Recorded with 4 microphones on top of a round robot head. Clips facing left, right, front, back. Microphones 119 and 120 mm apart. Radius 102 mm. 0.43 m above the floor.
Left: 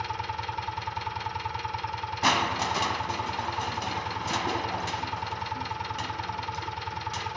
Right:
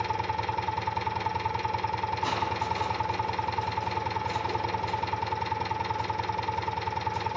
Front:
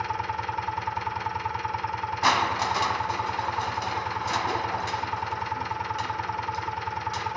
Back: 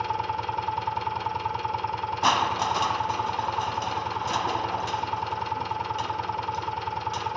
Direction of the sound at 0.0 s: 110° right.